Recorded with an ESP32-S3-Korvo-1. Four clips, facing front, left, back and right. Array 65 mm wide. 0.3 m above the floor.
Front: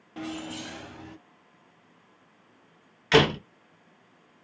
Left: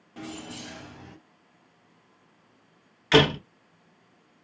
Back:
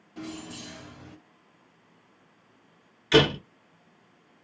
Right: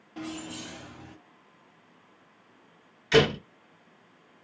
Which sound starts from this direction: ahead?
Keys jangling, at 0.2 s.